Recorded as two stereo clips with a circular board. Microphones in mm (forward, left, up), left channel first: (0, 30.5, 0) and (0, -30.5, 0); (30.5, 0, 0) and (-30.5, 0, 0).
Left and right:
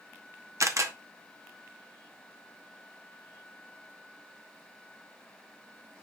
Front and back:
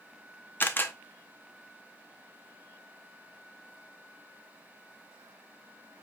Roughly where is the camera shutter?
Ahead right.